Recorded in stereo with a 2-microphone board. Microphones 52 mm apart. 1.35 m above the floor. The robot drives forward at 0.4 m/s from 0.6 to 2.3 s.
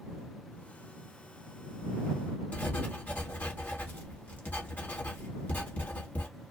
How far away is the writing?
About 1.1 m.